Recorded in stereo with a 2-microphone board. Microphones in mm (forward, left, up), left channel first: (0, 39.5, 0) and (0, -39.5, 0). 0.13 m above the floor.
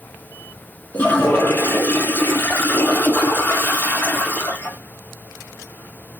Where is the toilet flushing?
30° left (ahead or behind), 1.0 m.